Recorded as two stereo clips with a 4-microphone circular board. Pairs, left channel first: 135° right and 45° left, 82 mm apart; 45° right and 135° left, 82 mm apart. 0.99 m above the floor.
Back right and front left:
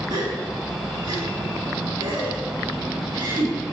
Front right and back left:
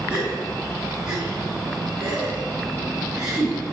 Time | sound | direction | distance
0.1 | a gasp | 55° left | 4 m